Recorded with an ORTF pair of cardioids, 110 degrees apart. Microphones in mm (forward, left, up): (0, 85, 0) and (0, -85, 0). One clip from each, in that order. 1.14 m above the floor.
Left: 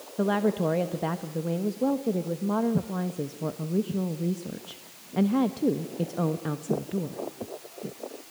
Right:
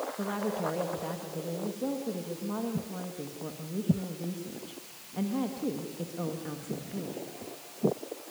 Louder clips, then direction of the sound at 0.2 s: Left 11 dB; 45° left.